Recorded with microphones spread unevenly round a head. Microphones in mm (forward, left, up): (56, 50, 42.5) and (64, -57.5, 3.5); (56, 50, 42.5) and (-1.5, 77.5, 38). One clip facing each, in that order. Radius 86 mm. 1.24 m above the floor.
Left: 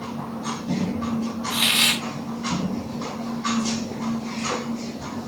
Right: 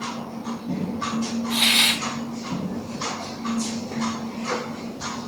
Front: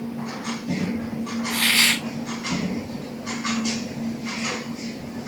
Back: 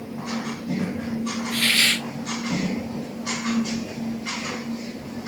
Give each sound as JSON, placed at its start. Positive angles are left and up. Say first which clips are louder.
{"t": 1.5, "sound": "a hiss", "louder": "right 1 dB, front 1 dB", "azimuth_deg": -40, "distance_m": 3.5}